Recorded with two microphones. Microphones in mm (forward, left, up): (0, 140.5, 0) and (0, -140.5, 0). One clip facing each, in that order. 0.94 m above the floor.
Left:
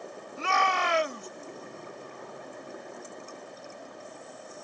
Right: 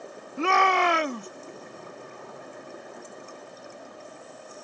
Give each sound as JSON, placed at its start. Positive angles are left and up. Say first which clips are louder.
{"t": 0.4, "sound": "a shout", "louder": "right 7 dB", "side_deg": -70}